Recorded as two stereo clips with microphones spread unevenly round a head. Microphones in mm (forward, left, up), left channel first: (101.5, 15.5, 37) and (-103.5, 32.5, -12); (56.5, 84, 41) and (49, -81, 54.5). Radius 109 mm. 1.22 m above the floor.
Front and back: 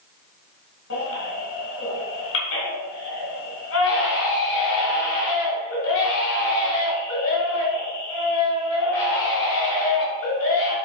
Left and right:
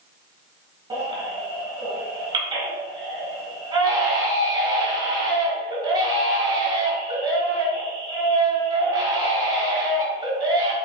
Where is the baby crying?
35° right, 3 m.